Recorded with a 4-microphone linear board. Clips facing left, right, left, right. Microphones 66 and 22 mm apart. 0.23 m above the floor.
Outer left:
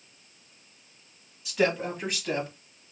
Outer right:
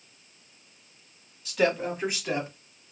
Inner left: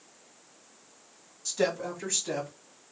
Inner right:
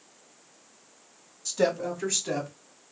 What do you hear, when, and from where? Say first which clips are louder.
1.4 s a woman speaking: outer right 1 dB, inner right 3 dB; 5° left (ahead or behind), 1.6 m; by 2.5 s 20° right (ahead or behind), 1.7 m